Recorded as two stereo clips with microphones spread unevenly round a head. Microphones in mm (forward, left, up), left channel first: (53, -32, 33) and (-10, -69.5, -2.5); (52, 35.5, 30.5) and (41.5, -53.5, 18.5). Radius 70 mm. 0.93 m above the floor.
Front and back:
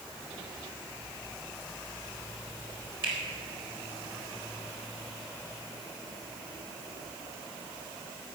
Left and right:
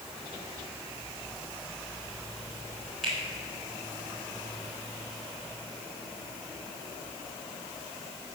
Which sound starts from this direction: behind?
A finger snap, at 3.0 s.